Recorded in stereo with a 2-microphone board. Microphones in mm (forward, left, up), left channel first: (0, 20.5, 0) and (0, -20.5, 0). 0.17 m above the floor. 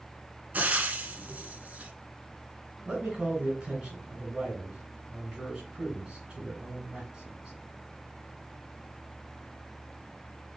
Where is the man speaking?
20° right (ahead or behind), 2.5 m.